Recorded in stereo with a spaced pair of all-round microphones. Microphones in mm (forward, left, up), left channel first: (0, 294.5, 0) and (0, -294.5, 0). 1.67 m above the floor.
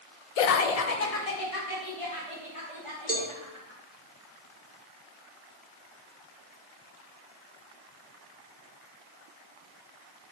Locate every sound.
0.4 s laughter: 65° left (ahead or behind), 0.5 m; by 3.8 s 55° left (ahead or behind), 3.5 m
3.1 s a cowbell: 15° left (ahead or behind), 1.3 m